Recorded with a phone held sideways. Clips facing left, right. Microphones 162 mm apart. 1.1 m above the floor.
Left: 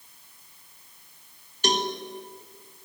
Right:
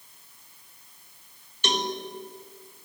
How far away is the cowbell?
About 1.2 m.